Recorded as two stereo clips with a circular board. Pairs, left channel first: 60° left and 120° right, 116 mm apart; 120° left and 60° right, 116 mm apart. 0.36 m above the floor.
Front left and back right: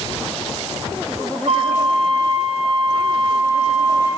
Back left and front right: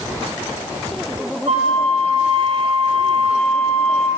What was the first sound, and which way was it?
A flute, 85° right.